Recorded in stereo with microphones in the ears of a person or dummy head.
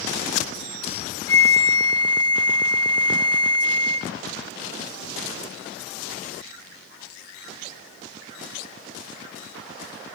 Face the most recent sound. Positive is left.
turn(degrees=10)  # may be behind; listen again after turning